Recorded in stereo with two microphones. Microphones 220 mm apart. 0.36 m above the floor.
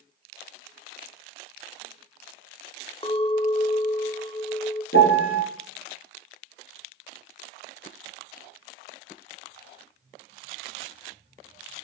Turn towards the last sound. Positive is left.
turn(degrees=65)  # may be behind; listen again after turning